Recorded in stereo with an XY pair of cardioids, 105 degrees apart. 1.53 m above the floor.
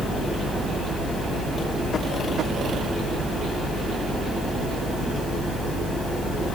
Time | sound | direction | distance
0.0 | a fan | 55° left | 1.5 m